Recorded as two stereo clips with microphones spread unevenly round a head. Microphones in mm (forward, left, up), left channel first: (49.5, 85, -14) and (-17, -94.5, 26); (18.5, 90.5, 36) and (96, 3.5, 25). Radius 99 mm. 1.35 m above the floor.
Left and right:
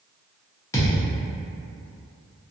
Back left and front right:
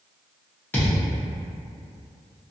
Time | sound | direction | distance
0.7 | a thud | 150° left | 0.7 m